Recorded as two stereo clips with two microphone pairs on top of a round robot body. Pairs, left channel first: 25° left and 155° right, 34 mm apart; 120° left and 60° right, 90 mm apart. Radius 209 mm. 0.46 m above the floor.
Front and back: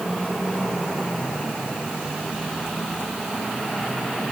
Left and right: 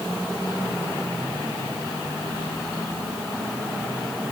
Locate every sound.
Only background noise.